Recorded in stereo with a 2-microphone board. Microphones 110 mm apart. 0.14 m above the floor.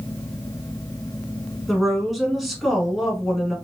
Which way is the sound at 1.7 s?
Centre (ahead or behind).